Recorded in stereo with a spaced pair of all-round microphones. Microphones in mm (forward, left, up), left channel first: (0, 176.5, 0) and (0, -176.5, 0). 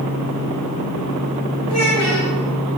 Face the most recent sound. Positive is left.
turn(degrees=45)  # may be behind; listen again after turning